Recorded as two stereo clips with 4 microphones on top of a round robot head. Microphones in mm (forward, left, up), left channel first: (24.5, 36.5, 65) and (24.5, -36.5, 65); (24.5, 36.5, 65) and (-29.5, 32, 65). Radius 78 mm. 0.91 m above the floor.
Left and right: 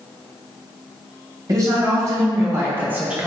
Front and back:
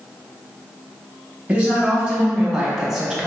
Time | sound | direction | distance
1.5 | a woman speaking | 105° right | 1.4 m